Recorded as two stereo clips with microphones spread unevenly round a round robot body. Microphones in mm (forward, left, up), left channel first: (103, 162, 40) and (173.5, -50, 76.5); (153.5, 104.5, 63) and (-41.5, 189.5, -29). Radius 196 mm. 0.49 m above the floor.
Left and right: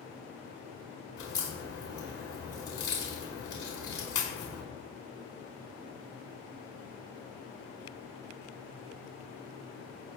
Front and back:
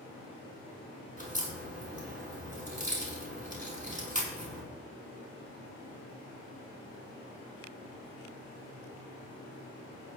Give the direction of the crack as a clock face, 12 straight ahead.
8 o'clock.